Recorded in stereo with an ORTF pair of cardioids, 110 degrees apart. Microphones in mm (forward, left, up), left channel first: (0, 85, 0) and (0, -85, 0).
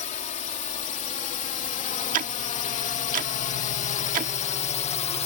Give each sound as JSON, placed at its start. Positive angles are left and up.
{"t": 0.0, "sound": "a drone", "azimuth_deg": 50}
{"t": 2.1, "sound": "ticking", "azimuth_deg": -55}